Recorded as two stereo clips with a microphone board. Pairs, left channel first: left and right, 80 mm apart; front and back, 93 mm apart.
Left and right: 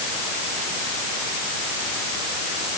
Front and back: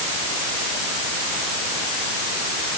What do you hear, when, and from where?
Only background noise.